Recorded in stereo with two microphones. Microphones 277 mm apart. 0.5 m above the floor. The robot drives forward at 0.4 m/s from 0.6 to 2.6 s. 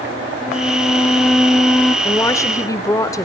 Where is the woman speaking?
10° left (ahead or behind), 1.8 m; by 3.3 s 15° left (ahead or behind), 1.6 m.